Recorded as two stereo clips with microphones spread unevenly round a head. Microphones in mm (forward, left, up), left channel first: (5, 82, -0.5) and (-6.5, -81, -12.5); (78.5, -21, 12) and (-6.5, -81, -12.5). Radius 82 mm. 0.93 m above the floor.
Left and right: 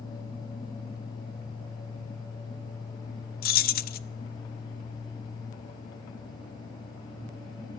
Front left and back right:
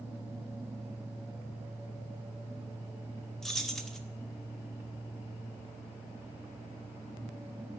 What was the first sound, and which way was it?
Keys jangling, 125° left.